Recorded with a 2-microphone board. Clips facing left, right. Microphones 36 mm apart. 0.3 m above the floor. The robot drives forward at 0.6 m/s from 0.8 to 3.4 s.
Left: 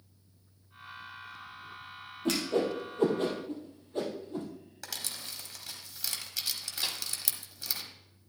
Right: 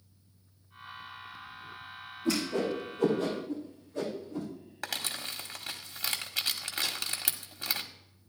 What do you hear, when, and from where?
2.2 s a whoosh: 75° left (ahead or behind), 4 m; by 4.5 s 65° left (ahead or behind), 4 m
4.8 s crumpling: 45° right (ahead or behind), 1.2 m
6.8 s a snare drum: 25° left (ahead or behind), 2.5 m